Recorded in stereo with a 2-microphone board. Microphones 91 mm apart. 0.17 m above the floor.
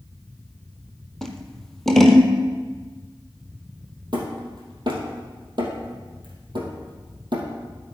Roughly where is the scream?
No scream in this recording.